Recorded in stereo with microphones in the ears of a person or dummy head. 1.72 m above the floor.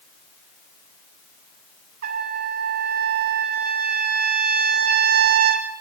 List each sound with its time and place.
2.0 s a trumpet: 50° right (ahead or behind), 3 m